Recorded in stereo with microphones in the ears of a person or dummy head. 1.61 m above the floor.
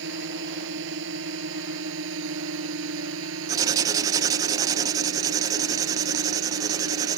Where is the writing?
25° right (ahead or behind).